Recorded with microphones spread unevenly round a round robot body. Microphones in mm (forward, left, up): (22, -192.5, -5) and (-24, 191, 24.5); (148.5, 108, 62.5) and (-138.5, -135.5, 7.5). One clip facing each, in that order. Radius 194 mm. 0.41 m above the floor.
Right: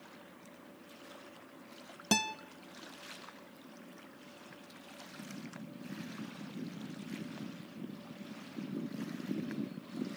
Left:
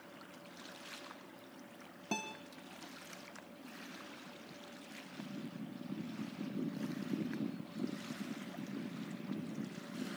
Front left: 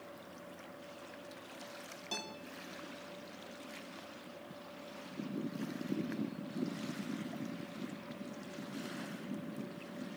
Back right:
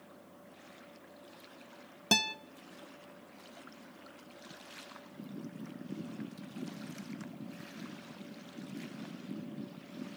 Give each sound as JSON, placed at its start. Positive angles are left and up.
{"t": 2.1, "sound": "a guitar", "azimuth_deg": -125, "distance_m": 0.8}